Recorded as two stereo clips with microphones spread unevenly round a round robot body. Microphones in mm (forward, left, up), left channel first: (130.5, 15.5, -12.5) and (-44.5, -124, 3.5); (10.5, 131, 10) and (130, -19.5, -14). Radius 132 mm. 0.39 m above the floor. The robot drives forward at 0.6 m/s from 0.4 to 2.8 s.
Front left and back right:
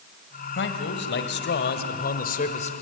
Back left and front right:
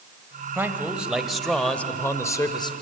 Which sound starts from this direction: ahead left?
A man speaking, at 0.6 s.